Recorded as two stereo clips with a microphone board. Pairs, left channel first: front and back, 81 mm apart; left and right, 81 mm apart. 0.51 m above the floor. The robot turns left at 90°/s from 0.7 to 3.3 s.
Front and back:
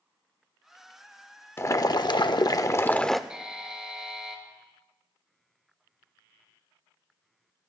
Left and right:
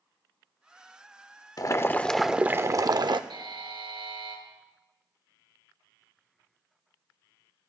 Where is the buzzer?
100° right, 2.5 m.